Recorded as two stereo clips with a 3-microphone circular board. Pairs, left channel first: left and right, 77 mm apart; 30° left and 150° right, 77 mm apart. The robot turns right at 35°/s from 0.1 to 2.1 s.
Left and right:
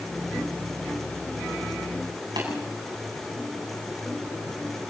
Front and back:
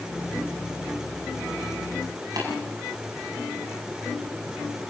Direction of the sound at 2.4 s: 115° right.